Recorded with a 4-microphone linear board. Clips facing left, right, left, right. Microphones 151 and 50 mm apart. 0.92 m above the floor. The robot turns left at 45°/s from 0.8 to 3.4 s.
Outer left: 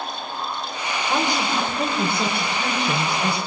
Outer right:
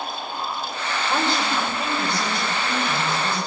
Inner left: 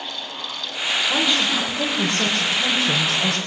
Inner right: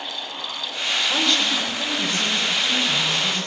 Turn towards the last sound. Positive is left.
turn(degrees=70)